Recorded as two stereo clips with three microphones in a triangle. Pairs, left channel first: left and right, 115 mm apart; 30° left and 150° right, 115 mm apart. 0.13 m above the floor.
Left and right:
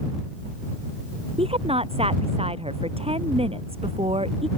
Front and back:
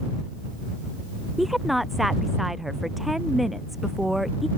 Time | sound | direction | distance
1.4 | a woman speaking | 60° right | ?